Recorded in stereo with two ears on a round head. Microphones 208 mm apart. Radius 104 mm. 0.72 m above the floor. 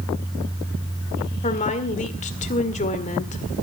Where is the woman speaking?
30° left (ahead or behind), 1.9 m.